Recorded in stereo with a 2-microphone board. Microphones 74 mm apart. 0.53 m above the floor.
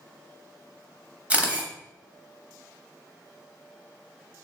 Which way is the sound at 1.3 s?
15° right (ahead or behind).